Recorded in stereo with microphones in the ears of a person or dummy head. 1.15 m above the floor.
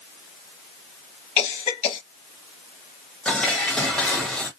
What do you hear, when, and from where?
1.4 s a cough: 40° left (ahead or behind), 1.1 m
3.2 s dishes clattering: 5° left (ahead or behind), 1.1 m